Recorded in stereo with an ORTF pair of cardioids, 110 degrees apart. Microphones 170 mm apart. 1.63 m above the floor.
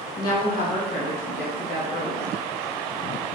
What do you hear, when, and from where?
0.2 s a woman speaking: 55° left, 2.5 m